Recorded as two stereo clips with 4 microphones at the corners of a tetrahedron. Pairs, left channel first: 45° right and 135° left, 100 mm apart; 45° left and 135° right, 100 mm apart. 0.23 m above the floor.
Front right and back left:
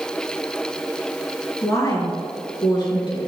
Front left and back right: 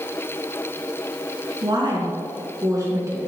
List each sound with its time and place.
1.6 s a woman speaking: 100° right, 3.5 m; by 3.3 s 75° right, 3 m